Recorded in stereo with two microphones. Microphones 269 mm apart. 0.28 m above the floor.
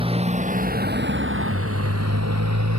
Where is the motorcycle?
20° right (ahead or behind); by 2.8 s 85° right.